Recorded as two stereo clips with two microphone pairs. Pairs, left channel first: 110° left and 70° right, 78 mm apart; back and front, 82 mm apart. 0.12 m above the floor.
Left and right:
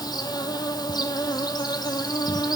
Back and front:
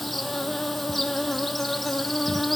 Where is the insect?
90° left, 0.9 m.